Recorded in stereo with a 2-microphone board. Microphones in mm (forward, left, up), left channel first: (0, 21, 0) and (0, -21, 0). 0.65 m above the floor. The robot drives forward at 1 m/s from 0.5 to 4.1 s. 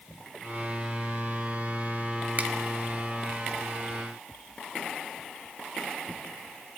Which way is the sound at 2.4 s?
40° right (ahead or behind).